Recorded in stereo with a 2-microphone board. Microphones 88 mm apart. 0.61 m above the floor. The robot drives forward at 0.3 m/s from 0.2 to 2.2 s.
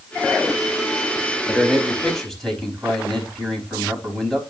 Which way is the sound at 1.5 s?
5° left (ahead or behind).